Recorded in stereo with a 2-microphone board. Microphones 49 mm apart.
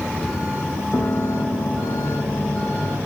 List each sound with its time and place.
0.9 s a piano: 60° left (ahead or behind), 1.2 m